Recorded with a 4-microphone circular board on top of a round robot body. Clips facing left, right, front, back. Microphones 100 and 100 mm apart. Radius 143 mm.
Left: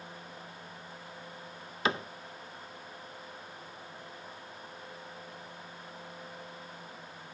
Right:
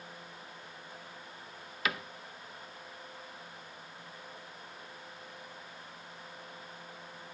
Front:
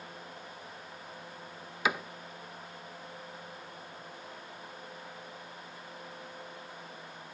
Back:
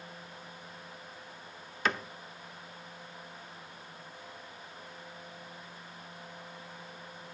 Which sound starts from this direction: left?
A cupboard door, at 1.9 s.